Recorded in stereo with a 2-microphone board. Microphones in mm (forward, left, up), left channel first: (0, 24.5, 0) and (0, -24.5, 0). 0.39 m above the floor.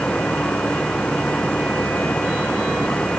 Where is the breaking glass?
No breaking glass in this recording.